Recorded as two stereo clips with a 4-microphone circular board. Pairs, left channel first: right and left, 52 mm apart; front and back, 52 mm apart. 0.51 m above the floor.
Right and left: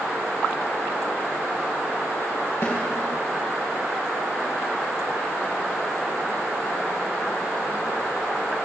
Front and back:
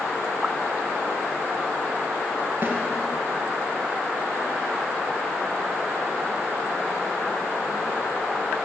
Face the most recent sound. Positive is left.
turn(degrees=-130)